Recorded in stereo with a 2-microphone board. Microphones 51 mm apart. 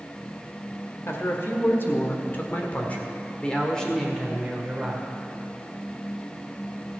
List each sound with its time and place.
1.1 s a man speaking: 55° left (ahead or behind), 1.8 m; by 5.0 s 5° right (ahead or behind), 1.8 m